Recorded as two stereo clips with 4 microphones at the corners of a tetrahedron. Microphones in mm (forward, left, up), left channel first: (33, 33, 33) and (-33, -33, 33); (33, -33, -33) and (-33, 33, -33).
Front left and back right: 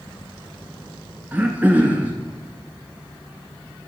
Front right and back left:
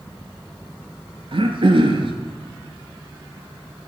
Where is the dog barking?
No dog barking in this recording.